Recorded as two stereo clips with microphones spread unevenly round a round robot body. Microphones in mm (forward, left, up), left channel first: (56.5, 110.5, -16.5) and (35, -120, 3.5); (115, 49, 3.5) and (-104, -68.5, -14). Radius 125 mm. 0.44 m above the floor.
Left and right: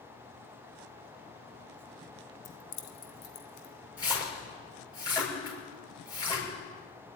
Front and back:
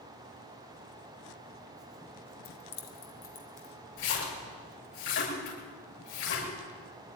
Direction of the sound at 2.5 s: 50° left.